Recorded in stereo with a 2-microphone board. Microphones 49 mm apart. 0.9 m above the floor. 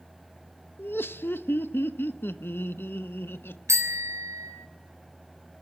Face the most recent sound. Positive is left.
turn(degrees=-80)